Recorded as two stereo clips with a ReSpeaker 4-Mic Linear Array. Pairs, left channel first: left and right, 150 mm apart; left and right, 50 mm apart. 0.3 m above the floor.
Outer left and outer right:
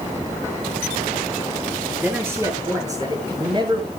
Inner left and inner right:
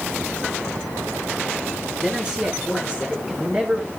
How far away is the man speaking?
About 4 m.